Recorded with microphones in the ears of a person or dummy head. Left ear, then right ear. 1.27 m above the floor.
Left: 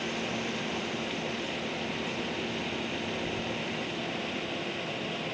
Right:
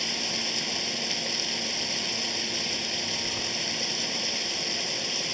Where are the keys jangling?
55° right (ahead or behind).